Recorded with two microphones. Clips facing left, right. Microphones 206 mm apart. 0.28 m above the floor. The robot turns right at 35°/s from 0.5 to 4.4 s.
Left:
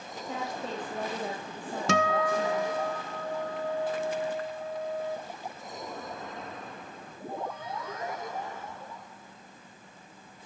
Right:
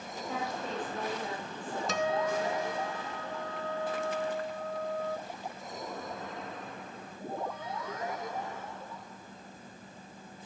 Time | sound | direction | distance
0.2 | a woman speaking | 20° left | 8 m
1.9 | a guitar | 80° left | 1.1 m